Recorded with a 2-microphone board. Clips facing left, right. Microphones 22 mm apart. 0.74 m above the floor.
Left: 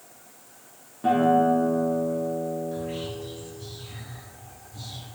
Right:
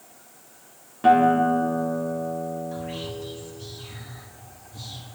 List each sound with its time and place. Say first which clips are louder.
1.0 s a guitar: right 3 dB; 45° right (ahead or behind), 1.0 m
2.7 s whispering: left 1 dB; 20° right (ahead or behind), 1.9 m